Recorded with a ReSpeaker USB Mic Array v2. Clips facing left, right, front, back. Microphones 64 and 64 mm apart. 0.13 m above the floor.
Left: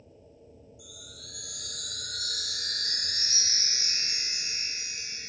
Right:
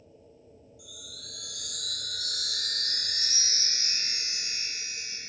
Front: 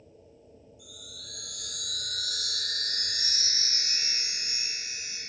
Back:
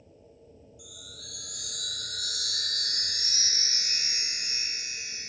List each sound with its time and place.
0.8 s a chime: 160° left, 4.5 m